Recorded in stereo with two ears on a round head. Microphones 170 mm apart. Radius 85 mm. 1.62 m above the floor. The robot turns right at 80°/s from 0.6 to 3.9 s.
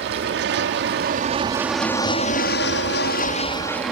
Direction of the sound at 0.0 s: 70° right (ahead or behind).